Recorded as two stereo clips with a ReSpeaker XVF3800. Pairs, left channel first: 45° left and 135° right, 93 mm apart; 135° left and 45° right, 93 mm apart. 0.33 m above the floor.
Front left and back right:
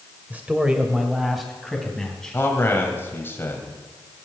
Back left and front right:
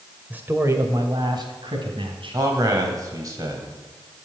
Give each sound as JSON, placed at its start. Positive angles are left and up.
{"t": 0.3, "sound": "a man speaking", "azimuth_deg": -95, "distance_m": 1.5}
{"t": 2.3, "sound": "a man speaking", "azimuth_deg": -15, "distance_m": 2.0}